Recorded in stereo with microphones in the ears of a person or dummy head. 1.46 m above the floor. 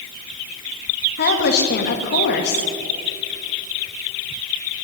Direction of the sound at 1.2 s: 50° left (ahead or behind).